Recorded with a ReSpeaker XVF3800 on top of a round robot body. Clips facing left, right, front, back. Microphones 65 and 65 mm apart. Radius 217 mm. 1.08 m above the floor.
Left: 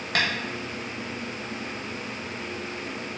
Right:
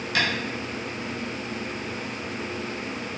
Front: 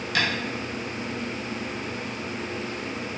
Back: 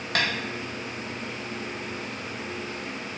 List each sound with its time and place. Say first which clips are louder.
0.1 s tapping: even, front 1 dB; 135° left, 0.7 m